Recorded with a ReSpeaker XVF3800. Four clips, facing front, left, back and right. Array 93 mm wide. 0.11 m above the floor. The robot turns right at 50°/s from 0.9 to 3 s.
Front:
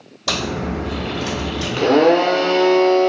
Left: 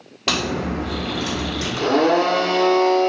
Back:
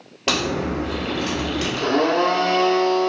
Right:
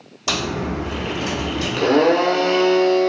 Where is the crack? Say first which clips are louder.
Left 1 dB, back 1 dB; 140° left, 1.5 m; by 1.8 s 175° right, 1.5 m.